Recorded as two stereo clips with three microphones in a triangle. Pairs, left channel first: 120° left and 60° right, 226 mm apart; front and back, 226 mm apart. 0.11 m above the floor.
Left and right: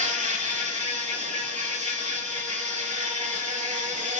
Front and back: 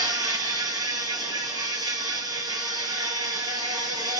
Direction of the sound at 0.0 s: 110° right.